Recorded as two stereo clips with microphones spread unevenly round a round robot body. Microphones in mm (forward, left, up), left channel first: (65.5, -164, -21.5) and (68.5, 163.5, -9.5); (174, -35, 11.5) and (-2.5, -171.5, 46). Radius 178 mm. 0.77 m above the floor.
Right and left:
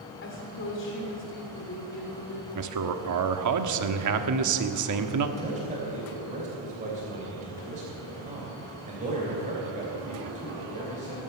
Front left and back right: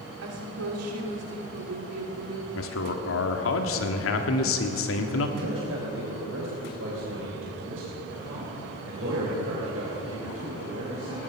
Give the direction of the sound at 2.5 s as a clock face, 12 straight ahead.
10 o'clock.